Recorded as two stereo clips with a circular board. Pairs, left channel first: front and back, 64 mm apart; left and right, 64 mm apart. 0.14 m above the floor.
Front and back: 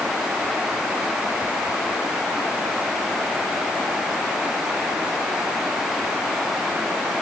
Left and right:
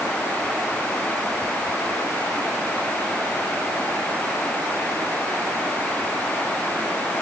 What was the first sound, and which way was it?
Only background noise.